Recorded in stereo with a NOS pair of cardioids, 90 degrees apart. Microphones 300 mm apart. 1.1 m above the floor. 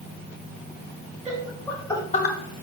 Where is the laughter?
10° right, 1.8 m; by 2.4 s 50° left, 0.7 m.